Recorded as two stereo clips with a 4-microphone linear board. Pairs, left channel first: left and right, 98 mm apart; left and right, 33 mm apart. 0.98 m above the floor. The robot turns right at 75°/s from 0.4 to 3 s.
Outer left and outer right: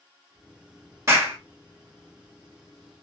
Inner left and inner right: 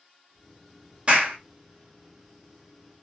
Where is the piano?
No piano in this recording.